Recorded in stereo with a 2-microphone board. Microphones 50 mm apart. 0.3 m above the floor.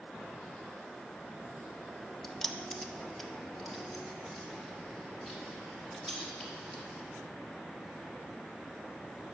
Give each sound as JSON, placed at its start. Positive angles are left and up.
{"t": 2.2, "sound": "keys jangling", "side_deg": 10, "distance_m": 0.6}